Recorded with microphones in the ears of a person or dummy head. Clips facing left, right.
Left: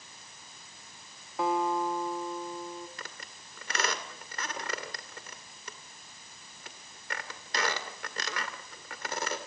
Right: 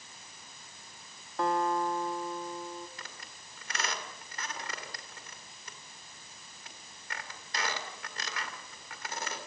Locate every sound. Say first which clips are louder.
1.4 s a guitar: left 1 dB; 5° left (ahead or behind), 1.5 m
3.0 s a squeak: left 3 dB; 60° left (ahead or behind), 2 m